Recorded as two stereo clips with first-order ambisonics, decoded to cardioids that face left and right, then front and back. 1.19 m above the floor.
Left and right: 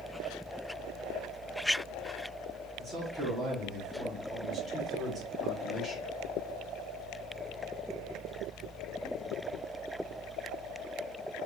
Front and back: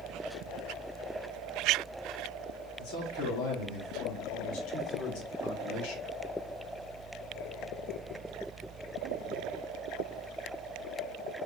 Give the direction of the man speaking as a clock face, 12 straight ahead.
1 o'clock.